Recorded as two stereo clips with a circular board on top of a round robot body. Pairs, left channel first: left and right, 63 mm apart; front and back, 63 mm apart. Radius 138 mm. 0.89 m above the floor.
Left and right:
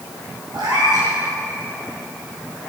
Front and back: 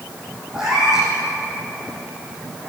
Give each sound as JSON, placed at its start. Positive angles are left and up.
{"t": 0.5, "sound": "a cat meowing", "azimuth_deg": -100, "distance_m": 10.0}